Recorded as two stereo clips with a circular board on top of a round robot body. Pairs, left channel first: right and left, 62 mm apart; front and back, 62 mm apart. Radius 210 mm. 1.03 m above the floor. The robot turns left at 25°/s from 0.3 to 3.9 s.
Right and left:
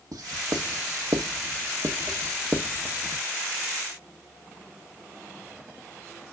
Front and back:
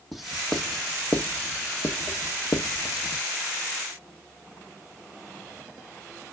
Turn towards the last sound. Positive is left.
turn(degrees=0)